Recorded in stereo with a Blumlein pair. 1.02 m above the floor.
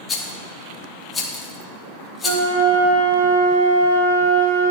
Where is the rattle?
15° left, 0.8 m.